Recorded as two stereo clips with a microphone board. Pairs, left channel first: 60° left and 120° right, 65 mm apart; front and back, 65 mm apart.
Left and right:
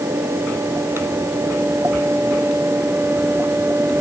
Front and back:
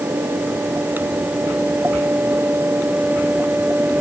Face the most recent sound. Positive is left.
No sound to turn to.